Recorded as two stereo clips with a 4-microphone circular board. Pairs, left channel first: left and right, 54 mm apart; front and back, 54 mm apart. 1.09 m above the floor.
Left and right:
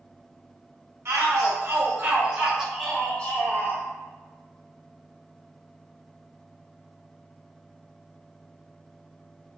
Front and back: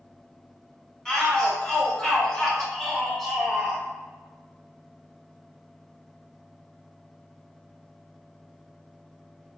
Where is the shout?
70° right, 1.1 m; by 3.8 s 100° left, 0.8 m.